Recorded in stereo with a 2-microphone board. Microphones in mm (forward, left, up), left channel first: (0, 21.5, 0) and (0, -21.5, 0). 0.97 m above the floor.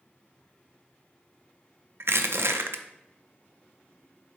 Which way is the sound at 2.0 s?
70° right (ahead or behind).